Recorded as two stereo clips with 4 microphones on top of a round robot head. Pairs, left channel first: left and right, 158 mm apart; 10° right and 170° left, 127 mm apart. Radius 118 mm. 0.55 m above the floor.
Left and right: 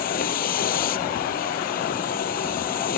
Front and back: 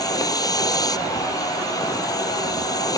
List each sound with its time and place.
0.0 s a vehicle: 50° left